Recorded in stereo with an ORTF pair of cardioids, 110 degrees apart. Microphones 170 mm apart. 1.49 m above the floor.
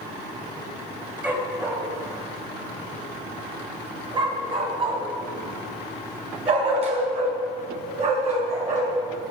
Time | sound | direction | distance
1.2 | a dog barking | 10° right | 3.5 m